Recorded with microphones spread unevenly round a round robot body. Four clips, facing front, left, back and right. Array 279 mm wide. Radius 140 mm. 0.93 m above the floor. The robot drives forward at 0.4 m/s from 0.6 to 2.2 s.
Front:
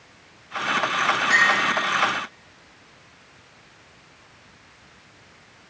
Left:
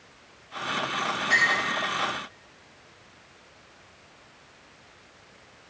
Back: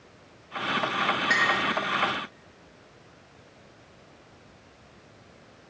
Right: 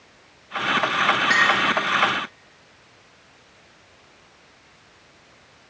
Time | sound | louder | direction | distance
1.3 | a clink | right 2 dB, front 6 dB | 135° right | 1.2 m